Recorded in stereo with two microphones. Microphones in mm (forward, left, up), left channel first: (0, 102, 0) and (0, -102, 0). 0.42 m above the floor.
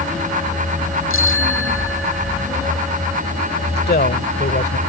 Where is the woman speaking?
50° left (ahead or behind).